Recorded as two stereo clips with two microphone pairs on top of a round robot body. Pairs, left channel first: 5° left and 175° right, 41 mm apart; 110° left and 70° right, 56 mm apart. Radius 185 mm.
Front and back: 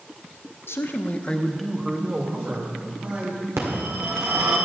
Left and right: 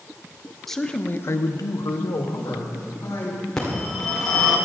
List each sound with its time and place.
0.7 s a man speaking: 25° left, 1.1 m; by 3.4 s 135° left, 3 m
3.6 s a phone ringing: 170° right, 2 m